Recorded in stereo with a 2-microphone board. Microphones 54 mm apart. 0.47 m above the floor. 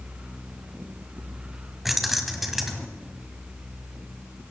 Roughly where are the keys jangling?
Centre.